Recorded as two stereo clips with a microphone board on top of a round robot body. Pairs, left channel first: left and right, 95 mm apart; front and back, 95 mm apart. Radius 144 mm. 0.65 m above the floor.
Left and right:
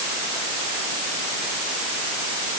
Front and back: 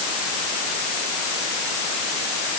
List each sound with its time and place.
Only background noise.